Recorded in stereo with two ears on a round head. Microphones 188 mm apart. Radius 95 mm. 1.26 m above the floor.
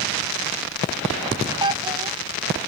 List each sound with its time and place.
1.6 s a child speaking: 20° right (ahead or behind)